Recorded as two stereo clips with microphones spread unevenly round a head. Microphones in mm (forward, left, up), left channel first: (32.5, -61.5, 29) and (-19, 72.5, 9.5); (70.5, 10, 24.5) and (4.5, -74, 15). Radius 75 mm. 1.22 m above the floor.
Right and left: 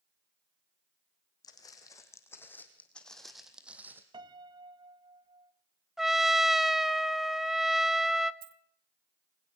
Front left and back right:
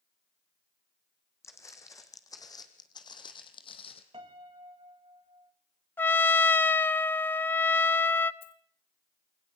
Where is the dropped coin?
85° left, 1.0 m.